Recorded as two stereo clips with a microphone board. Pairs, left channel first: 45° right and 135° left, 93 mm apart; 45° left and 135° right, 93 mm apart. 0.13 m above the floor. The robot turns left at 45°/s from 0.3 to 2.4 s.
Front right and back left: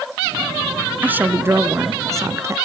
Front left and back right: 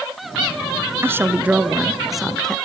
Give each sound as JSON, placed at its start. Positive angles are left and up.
{"t": 1.0, "sound": "a woman speaking", "azimuth_deg": -170, "distance_m": 1.4}